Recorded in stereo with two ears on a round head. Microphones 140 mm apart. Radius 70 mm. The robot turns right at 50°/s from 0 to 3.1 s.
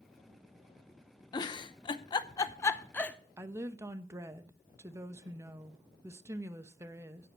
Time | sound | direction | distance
1.3 | a giggle | 30° left (ahead or behind) | 0.7 m
3.4 | a woman speaking | 20° right (ahead or behind) | 0.8 m